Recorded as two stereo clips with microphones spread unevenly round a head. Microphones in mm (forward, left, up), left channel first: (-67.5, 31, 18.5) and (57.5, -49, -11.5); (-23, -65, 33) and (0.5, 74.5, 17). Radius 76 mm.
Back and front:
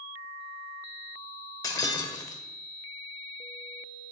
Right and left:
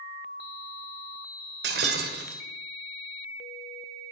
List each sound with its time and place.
1.6 s breaking glass: 85° left, 1.3 m